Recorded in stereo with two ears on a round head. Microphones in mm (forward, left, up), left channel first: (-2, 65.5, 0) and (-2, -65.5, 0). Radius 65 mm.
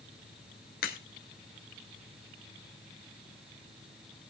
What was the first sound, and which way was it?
A crack, 70° left (ahead or behind).